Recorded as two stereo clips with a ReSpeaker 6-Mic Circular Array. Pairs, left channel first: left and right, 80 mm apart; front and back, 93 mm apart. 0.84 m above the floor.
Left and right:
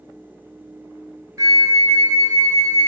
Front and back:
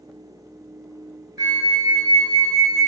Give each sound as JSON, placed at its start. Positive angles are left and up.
{"t": 1.4, "sound": "a flute", "azimuth_deg": -130, "distance_m": 0.6}